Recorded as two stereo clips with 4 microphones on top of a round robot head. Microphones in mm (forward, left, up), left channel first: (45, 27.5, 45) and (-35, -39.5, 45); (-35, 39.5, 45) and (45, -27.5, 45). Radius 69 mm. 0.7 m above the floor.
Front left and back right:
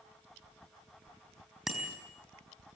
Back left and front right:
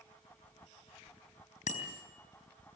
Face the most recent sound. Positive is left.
turn(degrees=130)